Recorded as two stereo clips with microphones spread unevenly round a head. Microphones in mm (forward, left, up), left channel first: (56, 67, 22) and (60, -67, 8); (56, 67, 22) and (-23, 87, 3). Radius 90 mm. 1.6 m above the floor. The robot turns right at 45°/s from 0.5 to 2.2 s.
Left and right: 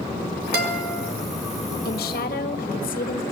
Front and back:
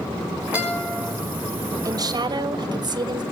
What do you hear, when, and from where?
0.5 s a guitar: 110° right, 5 m; by 1.1 s 85° right, 5 m
1.9 s a woman speaking: 120° left, 1.8 m; by 3.2 s 140° left, 1.8 m